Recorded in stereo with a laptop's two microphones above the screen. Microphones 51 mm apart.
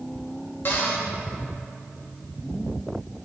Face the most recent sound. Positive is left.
turn(degrees=45)  # may be behind; listen again after turning